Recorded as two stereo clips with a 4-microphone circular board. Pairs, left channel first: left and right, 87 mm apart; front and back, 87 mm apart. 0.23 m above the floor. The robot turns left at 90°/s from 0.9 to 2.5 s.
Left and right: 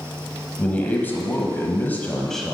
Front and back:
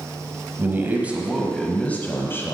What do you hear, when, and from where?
0.6 s a man speaking: 140° left, 1.1 m; by 2.6 s 5° right, 1.1 m